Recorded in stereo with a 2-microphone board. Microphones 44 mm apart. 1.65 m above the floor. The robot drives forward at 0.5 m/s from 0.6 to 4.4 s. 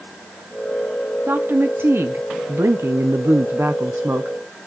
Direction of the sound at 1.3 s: 50° right (ahead or behind).